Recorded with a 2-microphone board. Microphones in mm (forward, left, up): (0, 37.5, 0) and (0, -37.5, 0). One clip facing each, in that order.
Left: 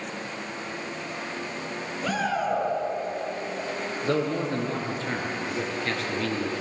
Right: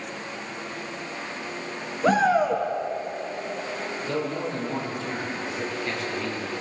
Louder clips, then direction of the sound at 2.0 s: Right 7 dB; 30° right (ahead or behind).